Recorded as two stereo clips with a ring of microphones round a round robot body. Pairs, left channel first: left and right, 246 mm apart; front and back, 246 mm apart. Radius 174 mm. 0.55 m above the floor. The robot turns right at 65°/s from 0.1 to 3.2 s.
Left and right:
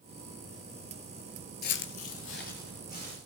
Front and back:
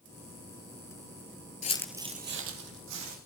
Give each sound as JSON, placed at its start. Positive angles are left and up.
{"t": 1.6, "sound": "footsteps", "azimuth_deg": 50, "distance_m": 0.7}